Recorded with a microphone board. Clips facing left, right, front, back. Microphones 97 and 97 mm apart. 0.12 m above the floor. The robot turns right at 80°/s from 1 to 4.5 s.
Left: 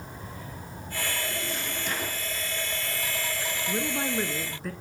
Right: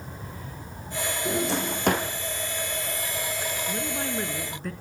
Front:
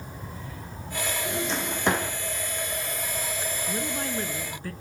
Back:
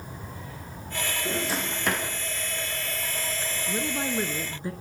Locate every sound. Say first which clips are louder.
1.2 s a drawer: right 8 dB, back 1 dB; 120° right, 4.5 m; by 2.1 s 50° right, 4.5 m
3.7 s a woman speaking: left 4 dB, back 4 dB; 110° left, 1.1 m; by 4.7 s 175° left, 1.1 m